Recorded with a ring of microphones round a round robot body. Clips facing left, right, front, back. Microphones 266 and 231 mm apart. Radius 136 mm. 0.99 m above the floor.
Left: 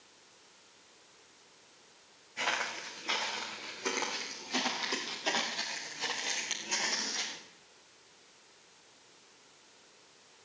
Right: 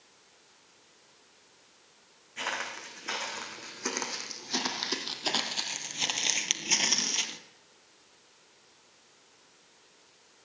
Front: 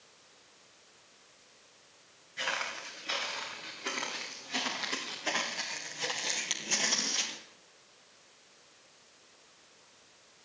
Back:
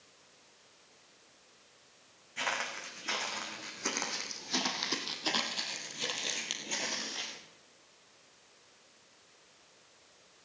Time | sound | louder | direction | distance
2.4 | footsteps | left 1 dB, even | 160° right | 4.5 m